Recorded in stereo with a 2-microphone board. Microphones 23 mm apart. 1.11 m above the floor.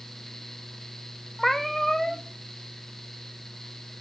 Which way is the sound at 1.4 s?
20° left (ahead or behind).